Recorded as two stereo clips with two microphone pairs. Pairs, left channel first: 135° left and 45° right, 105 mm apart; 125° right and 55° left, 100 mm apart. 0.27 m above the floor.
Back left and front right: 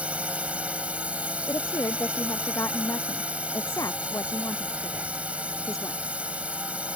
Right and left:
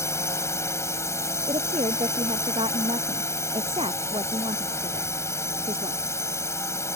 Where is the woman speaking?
75° left.